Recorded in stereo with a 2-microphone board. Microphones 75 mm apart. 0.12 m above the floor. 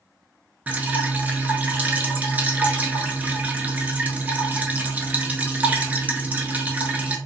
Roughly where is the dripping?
Centre.